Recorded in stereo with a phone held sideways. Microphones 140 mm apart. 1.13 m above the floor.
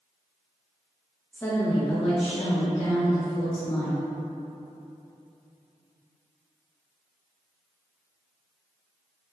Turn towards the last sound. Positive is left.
turn(degrees=80)